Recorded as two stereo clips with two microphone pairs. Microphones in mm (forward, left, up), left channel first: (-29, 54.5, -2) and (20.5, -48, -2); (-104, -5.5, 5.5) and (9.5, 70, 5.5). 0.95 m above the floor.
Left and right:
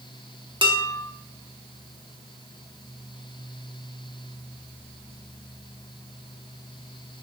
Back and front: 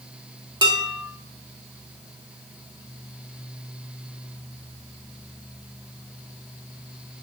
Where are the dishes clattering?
20° right, 1.5 m.